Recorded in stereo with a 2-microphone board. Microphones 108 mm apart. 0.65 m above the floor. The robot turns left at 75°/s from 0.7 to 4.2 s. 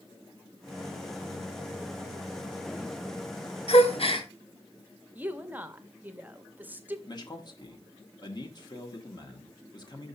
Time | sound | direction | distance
3.7 | a gasp | 100° left | 0.9 m
5.2 | a woman speaking | 15° right (ahead or behind) | 0.7 m
7.1 | a man speaking | 40° left (ahead or behind) | 1.3 m